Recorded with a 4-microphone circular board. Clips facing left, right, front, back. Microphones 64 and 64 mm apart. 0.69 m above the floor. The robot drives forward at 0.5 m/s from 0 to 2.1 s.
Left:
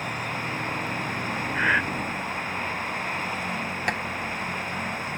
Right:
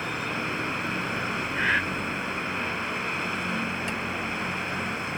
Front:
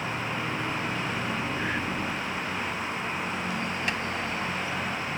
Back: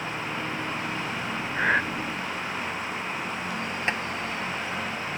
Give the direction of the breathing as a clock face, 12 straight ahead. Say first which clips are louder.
Left 3 dB, back 6 dB; 7 o'clock.